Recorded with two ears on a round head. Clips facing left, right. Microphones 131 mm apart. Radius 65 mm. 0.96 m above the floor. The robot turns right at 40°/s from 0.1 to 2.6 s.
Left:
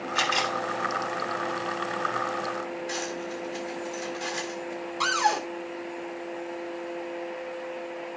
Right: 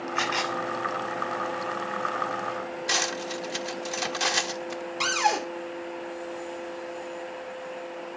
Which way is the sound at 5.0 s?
20° right (ahead or behind).